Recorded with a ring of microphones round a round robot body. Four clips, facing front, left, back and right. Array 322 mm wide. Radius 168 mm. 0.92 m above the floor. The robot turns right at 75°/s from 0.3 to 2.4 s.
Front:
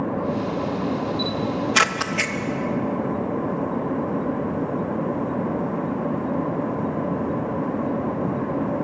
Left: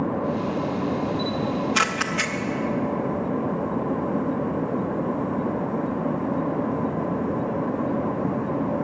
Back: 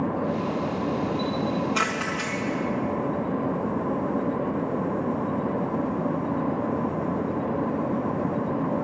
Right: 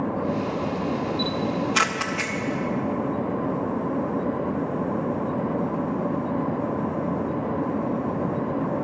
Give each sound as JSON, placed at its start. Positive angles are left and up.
{"t": 1.2, "sound": "a camera shutter", "azimuth_deg": -45, "distance_m": 0.6}